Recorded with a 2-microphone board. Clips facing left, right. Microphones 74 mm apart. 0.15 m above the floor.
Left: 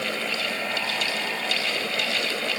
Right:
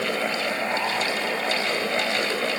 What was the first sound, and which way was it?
Only background noise.